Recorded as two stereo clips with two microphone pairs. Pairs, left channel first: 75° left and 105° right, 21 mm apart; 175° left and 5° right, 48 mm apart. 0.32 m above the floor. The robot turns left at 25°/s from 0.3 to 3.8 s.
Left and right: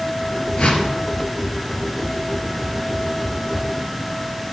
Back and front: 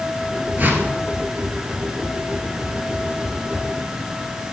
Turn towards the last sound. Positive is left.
turn(degrees=-30)